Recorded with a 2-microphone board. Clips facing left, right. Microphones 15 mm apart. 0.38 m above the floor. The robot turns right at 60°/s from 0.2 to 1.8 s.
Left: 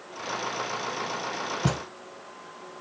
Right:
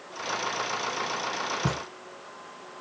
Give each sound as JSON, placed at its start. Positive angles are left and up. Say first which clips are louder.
{"t": 1.6, "sound": "a thud", "louder": "left 1 dB", "side_deg": 50, "distance_m": 0.8}